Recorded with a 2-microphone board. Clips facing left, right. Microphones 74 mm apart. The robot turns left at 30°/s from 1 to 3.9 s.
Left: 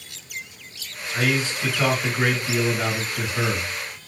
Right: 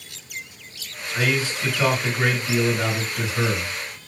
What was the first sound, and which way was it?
A man speaking, 25° left (ahead or behind).